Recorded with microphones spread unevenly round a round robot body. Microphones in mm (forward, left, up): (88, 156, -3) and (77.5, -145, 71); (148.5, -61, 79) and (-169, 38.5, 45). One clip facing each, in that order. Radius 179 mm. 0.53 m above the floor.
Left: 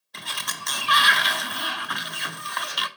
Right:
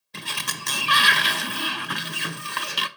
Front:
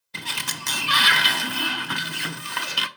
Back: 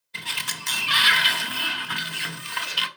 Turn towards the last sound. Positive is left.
turn(degrees=-30)